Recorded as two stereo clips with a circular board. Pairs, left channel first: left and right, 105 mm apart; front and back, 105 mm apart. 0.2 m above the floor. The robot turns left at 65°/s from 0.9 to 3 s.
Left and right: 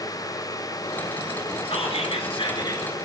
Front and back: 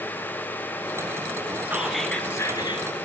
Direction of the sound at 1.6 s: 110° left.